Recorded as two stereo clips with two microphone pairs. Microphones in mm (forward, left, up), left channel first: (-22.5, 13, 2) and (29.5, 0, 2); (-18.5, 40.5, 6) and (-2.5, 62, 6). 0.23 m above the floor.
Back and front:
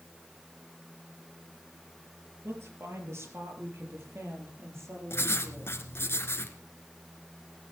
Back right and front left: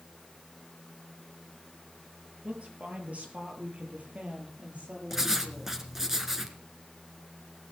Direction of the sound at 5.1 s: 125° left.